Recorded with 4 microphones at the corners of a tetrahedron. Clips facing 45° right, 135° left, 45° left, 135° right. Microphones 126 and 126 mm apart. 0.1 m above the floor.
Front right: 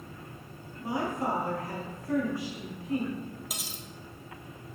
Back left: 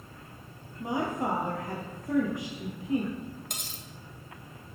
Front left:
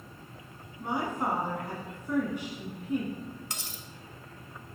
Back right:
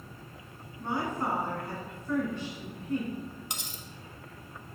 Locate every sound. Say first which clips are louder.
0.8 s a woman speaking: back left 1 dB, front left 1 dB; 105° left, 1.1 m
3.5 s cutlery clinking: front right 2 dB, back right 1 dB; 120° right, 0.7 m